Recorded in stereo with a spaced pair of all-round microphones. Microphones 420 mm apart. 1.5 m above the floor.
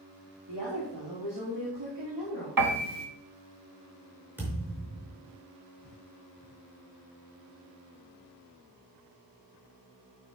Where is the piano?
50° right (ahead or behind), 1.4 m.